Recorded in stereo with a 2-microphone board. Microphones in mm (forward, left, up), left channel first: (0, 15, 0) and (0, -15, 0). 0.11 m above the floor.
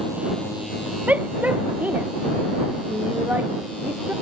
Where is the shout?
60° right (ahead or behind); by 4.1 s 80° right.